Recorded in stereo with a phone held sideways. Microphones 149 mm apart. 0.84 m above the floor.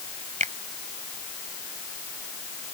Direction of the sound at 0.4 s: 60° right (ahead or behind).